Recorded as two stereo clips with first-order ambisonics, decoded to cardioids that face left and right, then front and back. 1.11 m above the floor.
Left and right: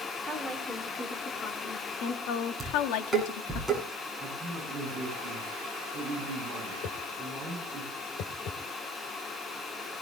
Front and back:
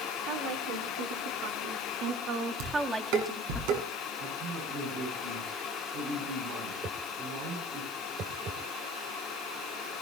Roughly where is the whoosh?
Behind left.